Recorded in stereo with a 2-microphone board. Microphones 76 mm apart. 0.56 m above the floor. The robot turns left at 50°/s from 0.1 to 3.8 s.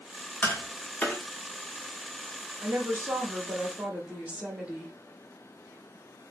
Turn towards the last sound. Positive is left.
turn(degrees=-150)